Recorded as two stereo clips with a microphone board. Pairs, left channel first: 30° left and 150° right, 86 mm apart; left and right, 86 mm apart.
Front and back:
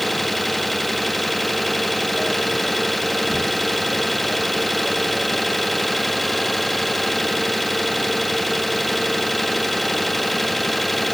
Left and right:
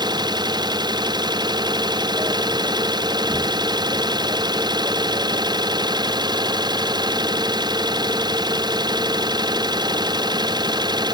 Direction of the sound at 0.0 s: 60° right.